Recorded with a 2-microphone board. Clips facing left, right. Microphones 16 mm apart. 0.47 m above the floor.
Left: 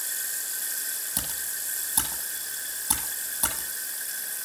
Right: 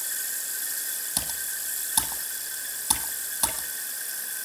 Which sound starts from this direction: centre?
Typing on a keyboard, at 1.2 s.